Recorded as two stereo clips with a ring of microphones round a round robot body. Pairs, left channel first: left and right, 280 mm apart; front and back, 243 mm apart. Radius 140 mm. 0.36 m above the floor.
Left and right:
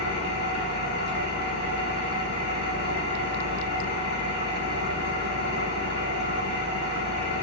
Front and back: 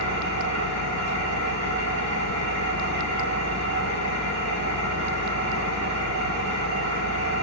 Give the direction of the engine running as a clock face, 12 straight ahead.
5 o'clock.